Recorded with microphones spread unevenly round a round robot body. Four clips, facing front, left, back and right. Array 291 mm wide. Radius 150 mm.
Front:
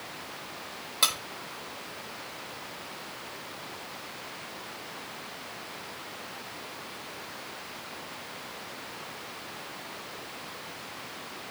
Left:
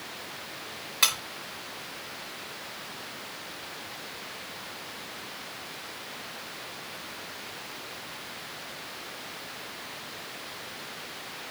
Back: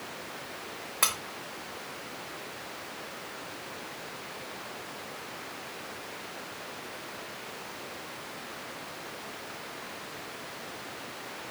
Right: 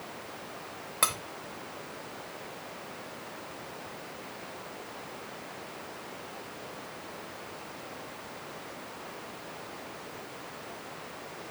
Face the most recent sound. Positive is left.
turn(degrees=-80)